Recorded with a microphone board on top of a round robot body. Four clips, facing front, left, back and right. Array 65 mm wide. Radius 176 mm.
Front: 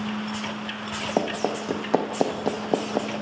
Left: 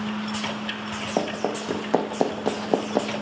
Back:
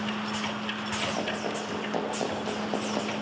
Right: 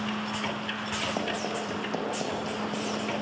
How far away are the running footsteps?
About 2.5 m.